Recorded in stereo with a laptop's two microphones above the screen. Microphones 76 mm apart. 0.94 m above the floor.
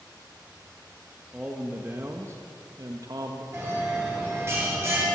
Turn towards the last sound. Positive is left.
turn(degrees=-35)  # may be behind; listen again after turning